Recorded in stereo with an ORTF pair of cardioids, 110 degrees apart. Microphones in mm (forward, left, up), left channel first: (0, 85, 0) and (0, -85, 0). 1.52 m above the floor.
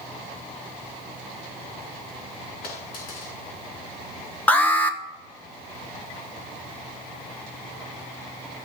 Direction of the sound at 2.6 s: 65° left.